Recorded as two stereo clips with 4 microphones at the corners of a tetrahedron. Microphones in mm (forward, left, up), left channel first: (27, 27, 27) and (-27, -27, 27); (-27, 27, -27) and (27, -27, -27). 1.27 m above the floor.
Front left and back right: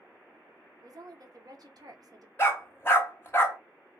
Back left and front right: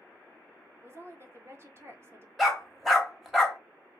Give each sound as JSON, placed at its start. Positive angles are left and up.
{"t": 0.8, "sound": "a woman speaking", "azimuth_deg": -100, "distance_m": 0.7}
{"t": 2.4, "sound": "a dog barking", "azimuth_deg": 45, "distance_m": 0.8}